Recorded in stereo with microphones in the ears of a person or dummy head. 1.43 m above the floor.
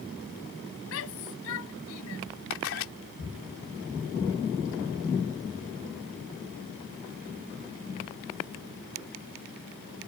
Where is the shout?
70° left (ahead or behind); by 2.2 s 75° left (ahead or behind).